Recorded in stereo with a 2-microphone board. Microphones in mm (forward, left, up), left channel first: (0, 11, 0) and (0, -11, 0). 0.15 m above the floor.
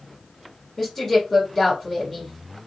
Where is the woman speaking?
20° left (ahead or behind), 1.3 m.